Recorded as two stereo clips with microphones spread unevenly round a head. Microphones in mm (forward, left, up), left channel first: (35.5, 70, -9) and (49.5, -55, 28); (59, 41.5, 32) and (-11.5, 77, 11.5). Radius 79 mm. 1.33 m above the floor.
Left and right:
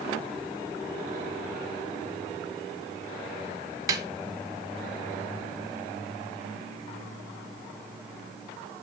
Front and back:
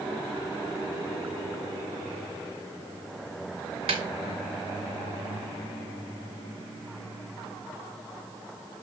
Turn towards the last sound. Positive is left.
turn(degrees=-150)